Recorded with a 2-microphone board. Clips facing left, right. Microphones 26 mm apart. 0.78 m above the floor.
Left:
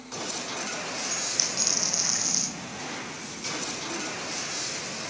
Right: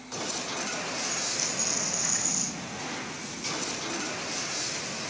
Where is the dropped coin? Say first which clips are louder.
Left 2 dB; 60° left (ahead or behind), 2.5 m.